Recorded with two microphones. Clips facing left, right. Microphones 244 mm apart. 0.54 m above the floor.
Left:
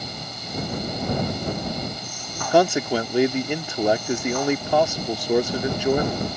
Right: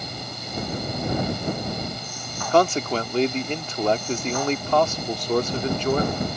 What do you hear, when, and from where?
2.5 s a man speaking: 10° left (ahead or behind)